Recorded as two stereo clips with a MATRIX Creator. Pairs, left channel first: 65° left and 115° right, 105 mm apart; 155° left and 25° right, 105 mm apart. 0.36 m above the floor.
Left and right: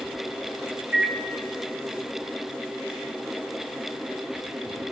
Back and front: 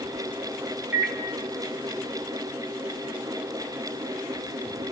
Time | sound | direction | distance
0.9 | a microwave | 55° right | 0.6 m